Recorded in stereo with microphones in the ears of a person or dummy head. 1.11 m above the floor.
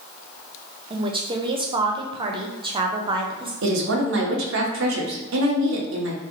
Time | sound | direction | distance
0.9 | a woman speaking | 30° right (ahead or behind) | 0.5 m
3.6 | a woman speaking | 80° right | 1.0 m